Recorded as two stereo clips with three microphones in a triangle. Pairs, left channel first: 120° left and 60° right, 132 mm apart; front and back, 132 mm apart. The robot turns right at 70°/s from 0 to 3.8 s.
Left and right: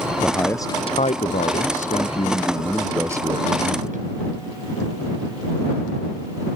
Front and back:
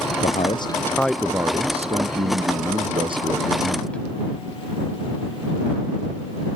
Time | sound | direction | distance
0.2 | a man speaking | 30° left | ?